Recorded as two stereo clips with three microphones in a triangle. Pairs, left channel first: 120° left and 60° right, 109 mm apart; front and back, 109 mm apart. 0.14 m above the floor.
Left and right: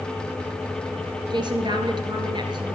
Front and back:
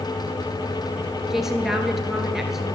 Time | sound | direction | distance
1.3 | a woman speaking | 95° right | 1.9 m